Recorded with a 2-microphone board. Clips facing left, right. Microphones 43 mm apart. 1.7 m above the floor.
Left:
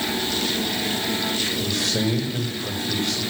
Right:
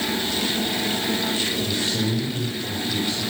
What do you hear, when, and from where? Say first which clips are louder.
1.6 s a man speaking: left 1 dB; 85° left, 6.5 m